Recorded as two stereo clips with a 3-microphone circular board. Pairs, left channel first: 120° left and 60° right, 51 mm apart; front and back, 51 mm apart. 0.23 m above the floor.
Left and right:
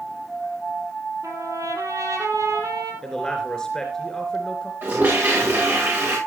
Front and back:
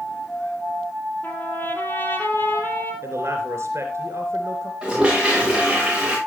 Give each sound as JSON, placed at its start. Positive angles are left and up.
{"t": 1.2, "sound": "a trumpet", "azimuth_deg": -50, "distance_m": 3.0}
{"t": 3.0, "sound": "a man speaking", "azimuth_deg": -165, "distance_m": 3.0}
{"t": 4.8, "sound": "a toilet flushing", "azimuth_deg": -105, "distance_m": 8.0}